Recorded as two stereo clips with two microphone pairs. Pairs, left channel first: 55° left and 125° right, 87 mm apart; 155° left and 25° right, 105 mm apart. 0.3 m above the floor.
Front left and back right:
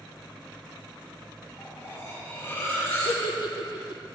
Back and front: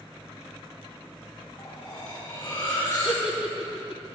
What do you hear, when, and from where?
1.6 s cutlery clinking: 105° left, 5 m
3.0 s a giggle: 60° left, 0.8 m